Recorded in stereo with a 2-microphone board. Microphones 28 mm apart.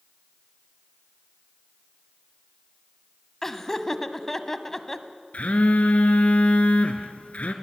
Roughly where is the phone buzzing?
Left.